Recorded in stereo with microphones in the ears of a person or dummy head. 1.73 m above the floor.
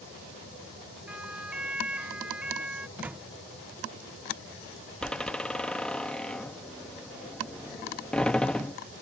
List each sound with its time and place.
1.1 s a siren: 10° right (ahead or behind)
3.0 s a microwave: 10° right (ahead or behind)
5.0 s a door slam: 5° left (ahead or behind)